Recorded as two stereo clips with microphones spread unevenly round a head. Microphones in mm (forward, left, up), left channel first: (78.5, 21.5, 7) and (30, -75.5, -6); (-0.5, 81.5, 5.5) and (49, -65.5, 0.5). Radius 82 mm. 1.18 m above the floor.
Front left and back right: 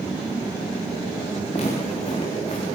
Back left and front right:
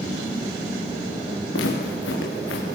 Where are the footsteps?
120° left, 5.5 m.